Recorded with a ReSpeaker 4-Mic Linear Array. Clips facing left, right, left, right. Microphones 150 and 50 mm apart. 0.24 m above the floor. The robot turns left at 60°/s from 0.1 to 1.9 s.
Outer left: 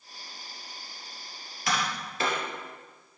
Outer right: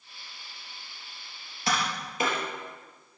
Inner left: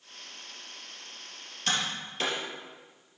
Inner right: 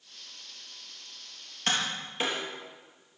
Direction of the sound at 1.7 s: 30° right (ahead or behind).